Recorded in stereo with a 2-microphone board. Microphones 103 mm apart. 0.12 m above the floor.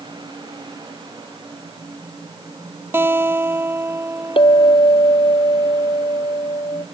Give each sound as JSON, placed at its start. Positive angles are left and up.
{"t": 2.9, "sound": "a guitar", "side_deg": -20}
{"t": 4.4, "sound": "a clink", "side_deg": 60}